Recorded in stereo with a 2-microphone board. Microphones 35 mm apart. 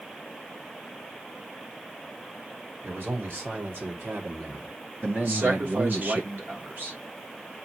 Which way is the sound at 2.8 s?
75° right (ahead or behind).